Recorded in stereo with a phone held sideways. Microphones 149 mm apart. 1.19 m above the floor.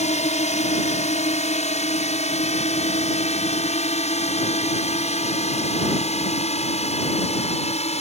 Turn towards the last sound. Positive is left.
turn(degrees=45)  # may be behind; listen again after turning